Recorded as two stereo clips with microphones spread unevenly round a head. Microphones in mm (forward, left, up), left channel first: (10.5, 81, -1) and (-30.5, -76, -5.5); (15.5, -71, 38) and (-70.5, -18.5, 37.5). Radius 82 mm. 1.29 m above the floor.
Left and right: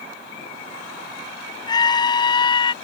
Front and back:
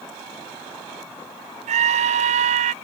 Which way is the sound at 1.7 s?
140° left.